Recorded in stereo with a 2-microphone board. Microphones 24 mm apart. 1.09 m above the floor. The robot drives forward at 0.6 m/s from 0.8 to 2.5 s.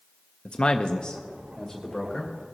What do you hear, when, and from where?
0.5 s a man speaking: 45° left (ahead or behind), 0.6 m; by 2.3 s 15° left (ahead or behind), 1.3 m